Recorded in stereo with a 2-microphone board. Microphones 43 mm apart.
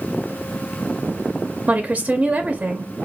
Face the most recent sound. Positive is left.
turn(degrees=-30)  # may be behind; listen again after turning